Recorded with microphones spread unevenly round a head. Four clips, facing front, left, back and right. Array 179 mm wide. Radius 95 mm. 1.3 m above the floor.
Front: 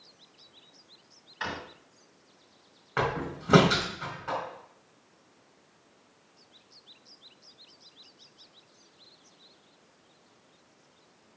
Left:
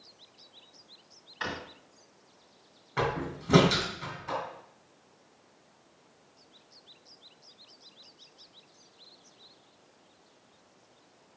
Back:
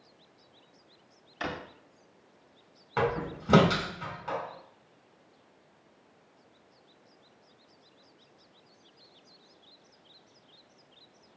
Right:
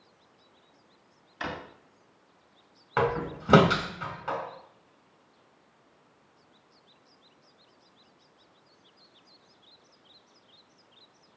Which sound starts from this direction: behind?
A drawer, at 1.4 s.